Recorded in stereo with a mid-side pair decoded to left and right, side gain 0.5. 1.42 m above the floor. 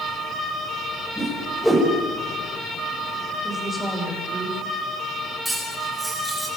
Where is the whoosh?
5° right, 6 m.